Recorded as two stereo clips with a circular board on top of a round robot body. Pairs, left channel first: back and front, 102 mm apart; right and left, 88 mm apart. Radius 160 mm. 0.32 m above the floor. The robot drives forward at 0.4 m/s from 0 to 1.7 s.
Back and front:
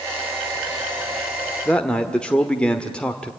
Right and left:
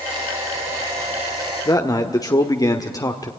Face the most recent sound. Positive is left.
turn(degrees=-105)